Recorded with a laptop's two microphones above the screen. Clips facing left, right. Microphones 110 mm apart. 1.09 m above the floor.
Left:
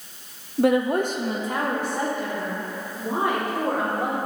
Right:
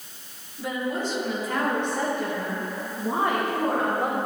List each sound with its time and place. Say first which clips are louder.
0.6 s a woman speaking: left 9 dB; 65° left (ahead or behind), 0.7 m; by 4.2 s 15° right (ahead or behind), 3 m